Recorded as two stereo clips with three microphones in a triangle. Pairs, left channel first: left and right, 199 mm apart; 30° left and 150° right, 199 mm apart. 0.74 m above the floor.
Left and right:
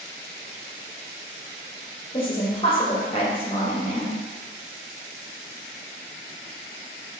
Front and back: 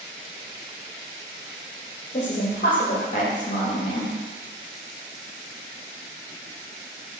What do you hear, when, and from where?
2.1 s a woman speaking: 45° left, 0.5 m